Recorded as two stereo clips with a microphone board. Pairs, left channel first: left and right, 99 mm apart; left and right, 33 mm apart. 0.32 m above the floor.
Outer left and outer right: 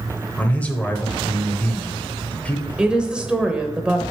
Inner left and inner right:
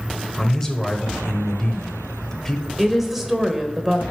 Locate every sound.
0.4 s a man speaking: 15° left (ahead or behind), 0.9 m
2.8 s a woman speaking: 10° right (ahead or behind), 0.8 m